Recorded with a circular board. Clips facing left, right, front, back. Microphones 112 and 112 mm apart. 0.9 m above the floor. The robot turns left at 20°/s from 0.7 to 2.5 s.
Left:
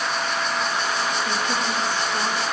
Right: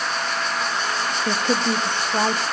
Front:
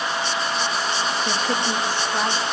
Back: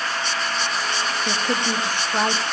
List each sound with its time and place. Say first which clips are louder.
1.3 s a woman speaking: right 3 dB, even; 95° right, 1.8 m; by 2.4 s 115° right, 1.8 m